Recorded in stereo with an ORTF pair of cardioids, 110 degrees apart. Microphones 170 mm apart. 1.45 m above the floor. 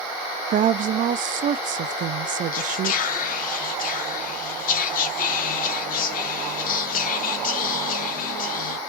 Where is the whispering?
55° left, 0.8 m.